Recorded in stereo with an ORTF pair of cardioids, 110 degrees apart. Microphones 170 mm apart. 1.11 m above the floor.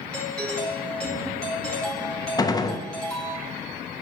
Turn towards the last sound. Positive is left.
turn(degrees=20)